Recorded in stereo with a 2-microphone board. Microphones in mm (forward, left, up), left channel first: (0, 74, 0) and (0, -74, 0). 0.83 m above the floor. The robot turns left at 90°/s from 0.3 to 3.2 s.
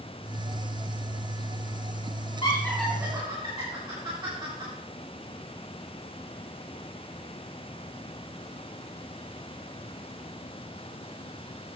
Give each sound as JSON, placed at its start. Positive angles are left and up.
{"t": 2.4, "sound": "laughter", "side_deg": 35, "distance_m": 2.5}